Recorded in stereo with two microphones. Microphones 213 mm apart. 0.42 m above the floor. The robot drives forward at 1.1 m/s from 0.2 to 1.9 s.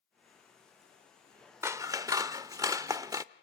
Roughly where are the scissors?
Centre.